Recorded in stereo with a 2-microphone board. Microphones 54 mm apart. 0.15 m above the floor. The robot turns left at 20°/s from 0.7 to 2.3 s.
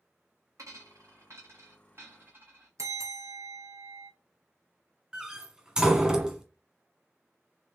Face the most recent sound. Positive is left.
turn(degrees=-10)  # may be behind; listen again after turning